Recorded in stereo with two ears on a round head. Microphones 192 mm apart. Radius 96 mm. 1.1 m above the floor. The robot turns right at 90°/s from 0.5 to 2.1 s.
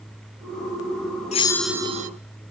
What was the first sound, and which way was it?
A bell, 150° left.